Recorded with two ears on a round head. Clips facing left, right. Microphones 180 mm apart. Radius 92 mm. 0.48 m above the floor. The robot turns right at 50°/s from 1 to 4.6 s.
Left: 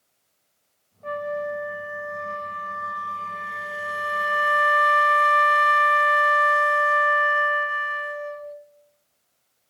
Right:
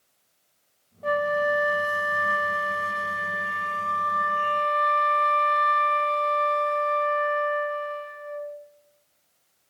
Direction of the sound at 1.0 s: 125° right.